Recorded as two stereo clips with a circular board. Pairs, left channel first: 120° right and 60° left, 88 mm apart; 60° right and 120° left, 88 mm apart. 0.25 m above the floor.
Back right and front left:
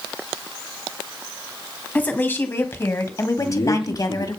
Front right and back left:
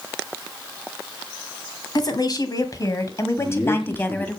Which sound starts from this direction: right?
A man speaking, at 3.4 s.